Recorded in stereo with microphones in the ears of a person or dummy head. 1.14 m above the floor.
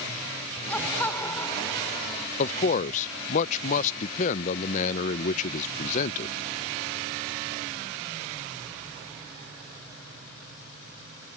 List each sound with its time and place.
0.7 s laughter: 10° left (ahead or behind); by 2.3 s 30° left (ahead or behind)
2.4 s a man speaking: 40° left (ahead or behind)